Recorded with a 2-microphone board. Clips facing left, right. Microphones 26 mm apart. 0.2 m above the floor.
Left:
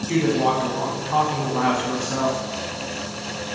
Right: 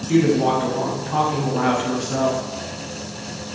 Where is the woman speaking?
35° left (ahead or behind), 1.4 m.